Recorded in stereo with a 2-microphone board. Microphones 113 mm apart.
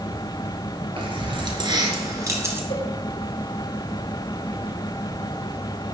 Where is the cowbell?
70° left (ahead or behind), 3.5 m.